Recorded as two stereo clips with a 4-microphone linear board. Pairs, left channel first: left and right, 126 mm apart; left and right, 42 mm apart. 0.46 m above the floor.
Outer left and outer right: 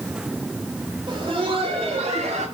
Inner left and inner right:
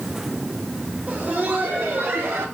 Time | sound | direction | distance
1.1 | laughter | 40° right (ahead or behind) | 1.6 m